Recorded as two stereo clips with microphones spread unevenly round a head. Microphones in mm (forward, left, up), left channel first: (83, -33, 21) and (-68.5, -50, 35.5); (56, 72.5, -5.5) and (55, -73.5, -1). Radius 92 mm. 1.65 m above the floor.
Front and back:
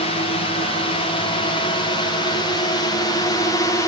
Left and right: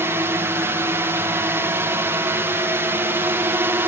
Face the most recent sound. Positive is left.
turn(degrees=-30)